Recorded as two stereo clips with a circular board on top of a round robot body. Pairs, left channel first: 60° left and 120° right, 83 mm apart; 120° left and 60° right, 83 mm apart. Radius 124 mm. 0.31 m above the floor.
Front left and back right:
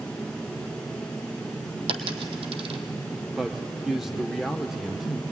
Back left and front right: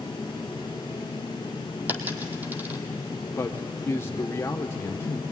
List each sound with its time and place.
1.9 s a dropped coin: 130° right, 1.2 m
3.3 s a man speaking: 160° left, 1.1 m